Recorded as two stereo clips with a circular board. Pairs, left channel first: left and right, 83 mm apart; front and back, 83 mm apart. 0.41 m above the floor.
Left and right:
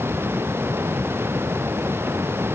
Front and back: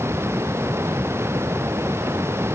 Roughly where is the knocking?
No knocking in this recording.